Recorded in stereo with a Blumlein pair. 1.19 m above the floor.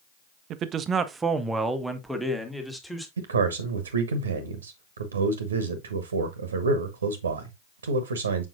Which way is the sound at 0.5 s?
35° right.